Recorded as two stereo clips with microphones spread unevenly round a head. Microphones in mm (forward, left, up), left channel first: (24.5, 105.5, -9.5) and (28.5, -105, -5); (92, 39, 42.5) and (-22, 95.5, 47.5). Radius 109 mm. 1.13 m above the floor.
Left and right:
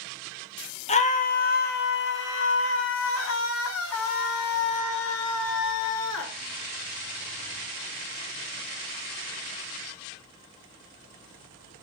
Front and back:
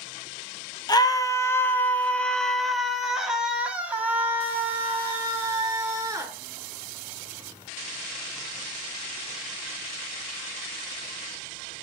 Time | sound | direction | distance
0.9 | a scream | 30° left | 1.6 m